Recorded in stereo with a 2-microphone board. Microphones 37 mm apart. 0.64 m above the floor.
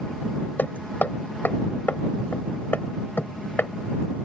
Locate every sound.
0.6 s hammering: 65° left (ahead or behind)